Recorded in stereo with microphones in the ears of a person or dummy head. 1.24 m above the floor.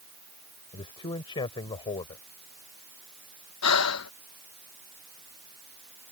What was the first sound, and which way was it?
A man speaking, 25° left (ahead or behind).